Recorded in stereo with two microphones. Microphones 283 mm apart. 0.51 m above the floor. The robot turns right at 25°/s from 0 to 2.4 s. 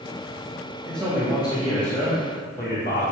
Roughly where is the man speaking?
Ahead.